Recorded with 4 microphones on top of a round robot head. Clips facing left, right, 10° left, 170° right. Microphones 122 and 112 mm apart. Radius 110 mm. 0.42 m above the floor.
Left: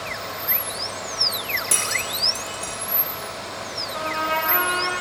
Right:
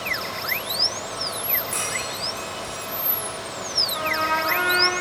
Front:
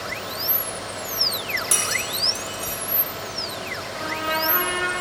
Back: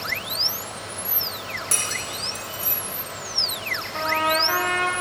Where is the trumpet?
165° left, 1.9 m.